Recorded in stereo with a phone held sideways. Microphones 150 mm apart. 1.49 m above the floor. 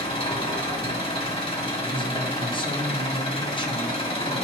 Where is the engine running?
40° left (ahead or behind), 1.5 m.